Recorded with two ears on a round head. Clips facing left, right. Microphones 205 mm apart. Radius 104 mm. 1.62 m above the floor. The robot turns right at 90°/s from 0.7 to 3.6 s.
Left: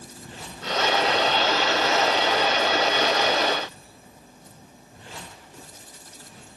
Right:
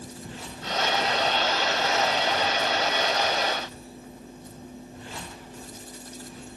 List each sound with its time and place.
Only background noise.